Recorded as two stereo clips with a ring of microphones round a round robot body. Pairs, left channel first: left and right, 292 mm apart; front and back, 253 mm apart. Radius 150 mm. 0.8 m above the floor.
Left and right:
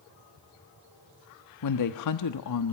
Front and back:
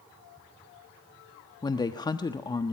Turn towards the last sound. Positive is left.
turn(degrees=75)